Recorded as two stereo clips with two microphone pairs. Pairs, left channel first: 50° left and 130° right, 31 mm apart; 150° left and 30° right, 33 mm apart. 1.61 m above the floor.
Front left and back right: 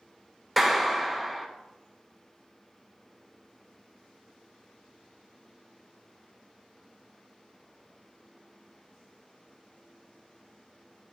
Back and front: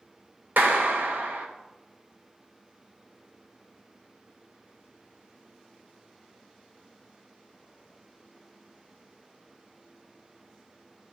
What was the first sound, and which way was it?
A clap, 35° right.